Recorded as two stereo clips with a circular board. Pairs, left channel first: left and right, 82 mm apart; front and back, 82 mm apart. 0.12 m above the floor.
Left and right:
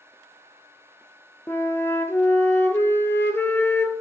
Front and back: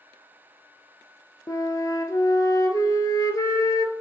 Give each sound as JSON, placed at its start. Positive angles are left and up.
{"t": 1.5, "sound": "a flute", "azimuth_deg": 30, "distance_m": 0.6}